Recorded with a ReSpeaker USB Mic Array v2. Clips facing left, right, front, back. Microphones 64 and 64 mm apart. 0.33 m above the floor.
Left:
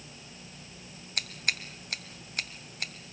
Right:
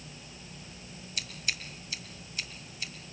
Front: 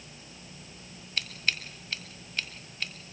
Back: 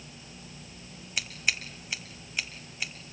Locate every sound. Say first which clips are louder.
1.2 s scissors: left 4 dB, back 1 dB; 105° left, 1.5 m